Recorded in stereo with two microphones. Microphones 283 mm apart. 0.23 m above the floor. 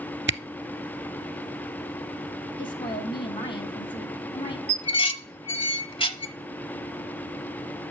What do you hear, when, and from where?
0.3 s a camera shutter: 45° right (ahead or behind), 0.5 m
2.6 s a woman speaking: 15° left (ahead or behind), 2 m
4.7 s dishes clattering: 20° left (ahead or behind), 0.9 m